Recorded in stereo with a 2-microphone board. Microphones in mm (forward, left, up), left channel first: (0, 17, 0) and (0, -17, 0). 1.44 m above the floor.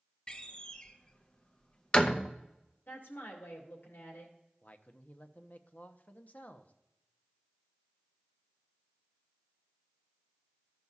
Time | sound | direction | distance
0.3 | a door slam | 25° left (ahead or behind) | 0.7 m
2.9 | a woman speaking | 85° left | 2 m
4.6 | a man speaking | 50° left (ahead or behind) | 0.7 m